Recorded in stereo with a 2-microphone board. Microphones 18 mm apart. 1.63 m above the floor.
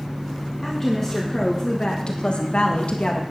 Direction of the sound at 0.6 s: 10° left (ahead or behind).